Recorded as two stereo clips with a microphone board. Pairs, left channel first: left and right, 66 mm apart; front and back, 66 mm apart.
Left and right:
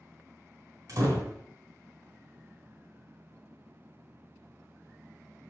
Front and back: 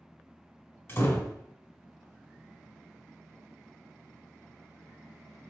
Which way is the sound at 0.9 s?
55° right.